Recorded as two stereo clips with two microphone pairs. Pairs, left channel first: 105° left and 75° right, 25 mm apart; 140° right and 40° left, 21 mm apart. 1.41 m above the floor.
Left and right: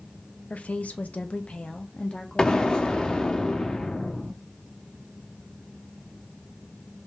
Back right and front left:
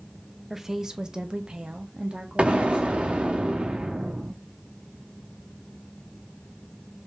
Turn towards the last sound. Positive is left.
turn(degrees=50)